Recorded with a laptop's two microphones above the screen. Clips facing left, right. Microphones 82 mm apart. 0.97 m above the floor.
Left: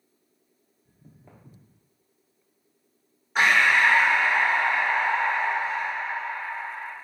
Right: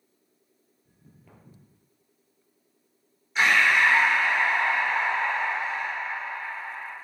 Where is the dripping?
No dripping in this recording.